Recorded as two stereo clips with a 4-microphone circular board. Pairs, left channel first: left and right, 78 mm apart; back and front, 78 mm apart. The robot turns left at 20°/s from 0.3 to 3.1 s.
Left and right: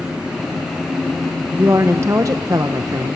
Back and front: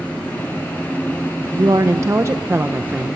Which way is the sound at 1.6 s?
35° right.